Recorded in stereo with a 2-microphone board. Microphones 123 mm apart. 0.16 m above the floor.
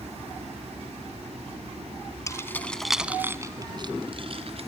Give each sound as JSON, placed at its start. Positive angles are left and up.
{"t": 2.3, "sound": "keys jangling", "side_deg": 25, "distance_m": 1.2}